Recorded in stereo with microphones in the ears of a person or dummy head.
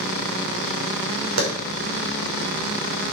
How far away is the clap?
About 5.5 m.